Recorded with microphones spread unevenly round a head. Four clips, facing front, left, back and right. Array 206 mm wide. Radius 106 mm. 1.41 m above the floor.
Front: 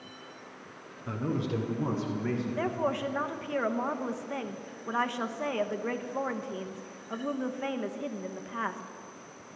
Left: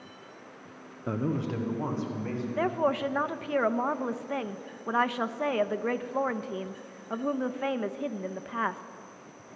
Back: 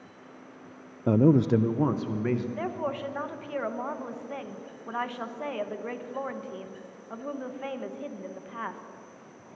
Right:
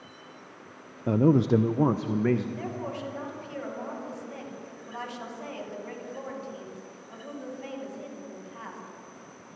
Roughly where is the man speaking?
Behind.